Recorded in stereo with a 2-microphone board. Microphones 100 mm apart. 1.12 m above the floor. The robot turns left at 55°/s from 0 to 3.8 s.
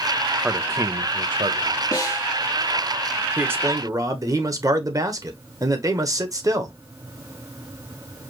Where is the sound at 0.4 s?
10° right, 0.7 m; by 1.8 s 90° right, 0.7 m.